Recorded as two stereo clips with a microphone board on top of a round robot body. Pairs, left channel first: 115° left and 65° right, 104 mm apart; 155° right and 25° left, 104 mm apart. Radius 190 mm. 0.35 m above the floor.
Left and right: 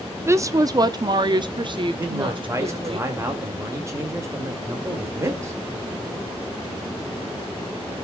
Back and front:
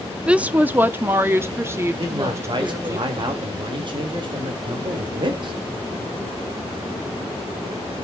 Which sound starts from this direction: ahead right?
A woman speaking, at 0.3 s.